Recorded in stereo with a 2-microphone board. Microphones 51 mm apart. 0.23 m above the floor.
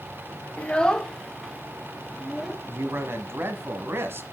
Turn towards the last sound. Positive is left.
turn(degrees=-45)  # may be behind; listen again after turning